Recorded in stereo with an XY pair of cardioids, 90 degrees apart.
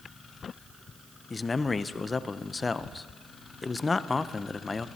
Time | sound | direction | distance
1.3 | a man speaking | 35° left | 0.5 m